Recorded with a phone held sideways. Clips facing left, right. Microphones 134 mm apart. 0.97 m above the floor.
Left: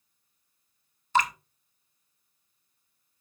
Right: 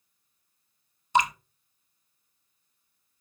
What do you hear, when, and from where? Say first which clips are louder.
1.1 s dripping: right 2 dB; 20° right (ahead or behind), 1.0 m